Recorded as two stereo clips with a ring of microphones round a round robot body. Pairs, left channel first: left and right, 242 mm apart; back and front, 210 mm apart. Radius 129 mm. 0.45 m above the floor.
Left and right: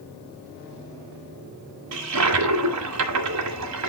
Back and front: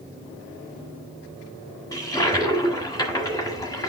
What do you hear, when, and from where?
1.9 s a toilet flushing: 105° right, 1.4 m